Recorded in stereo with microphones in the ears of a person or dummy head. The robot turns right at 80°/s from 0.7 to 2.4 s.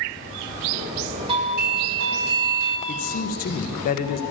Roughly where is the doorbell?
Behind right.